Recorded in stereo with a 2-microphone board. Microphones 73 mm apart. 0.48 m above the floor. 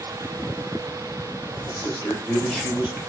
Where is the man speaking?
35° left (ahead or behind), 1.9 m; by 3.0 s 25° right (ahead or behind), 1.0 m.